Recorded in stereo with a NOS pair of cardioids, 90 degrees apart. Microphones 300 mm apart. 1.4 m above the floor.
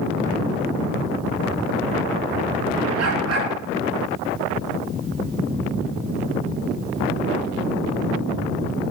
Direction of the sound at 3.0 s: 60° right.